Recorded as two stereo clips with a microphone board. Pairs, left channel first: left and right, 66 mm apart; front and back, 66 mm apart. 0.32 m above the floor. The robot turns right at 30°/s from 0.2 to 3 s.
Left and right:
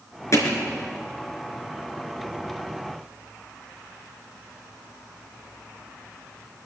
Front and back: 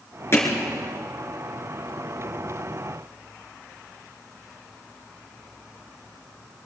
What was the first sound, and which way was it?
Hammering, 50° left.